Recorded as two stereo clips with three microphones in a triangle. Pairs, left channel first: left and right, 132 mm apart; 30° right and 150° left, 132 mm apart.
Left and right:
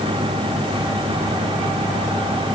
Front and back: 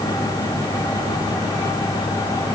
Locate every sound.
Only background noise.